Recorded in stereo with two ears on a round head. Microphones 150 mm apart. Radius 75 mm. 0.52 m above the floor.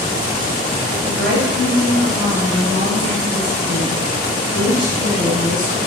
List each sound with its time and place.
1.0 s a woman speaking: 70° right (ahead or behind), 3 m; by 5.8 s 25° right (ahead or behind), 4.5 m